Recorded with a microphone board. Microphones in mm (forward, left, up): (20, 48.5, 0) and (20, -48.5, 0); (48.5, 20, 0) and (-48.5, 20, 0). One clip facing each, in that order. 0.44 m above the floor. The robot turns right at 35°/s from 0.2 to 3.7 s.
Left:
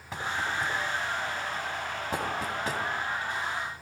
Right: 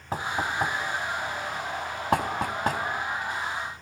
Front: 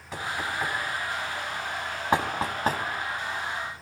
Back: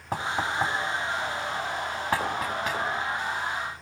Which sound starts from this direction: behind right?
Knocking, at 0.1 s.